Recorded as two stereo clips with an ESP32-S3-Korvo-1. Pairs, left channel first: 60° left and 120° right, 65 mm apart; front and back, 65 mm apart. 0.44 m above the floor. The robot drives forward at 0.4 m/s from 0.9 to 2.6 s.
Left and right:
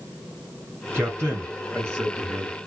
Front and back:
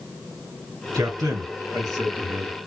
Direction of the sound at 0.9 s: 175° right.